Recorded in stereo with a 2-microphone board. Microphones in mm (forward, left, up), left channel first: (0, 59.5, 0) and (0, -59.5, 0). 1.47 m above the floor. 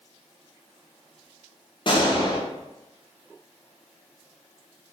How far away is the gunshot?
About 0.7 m.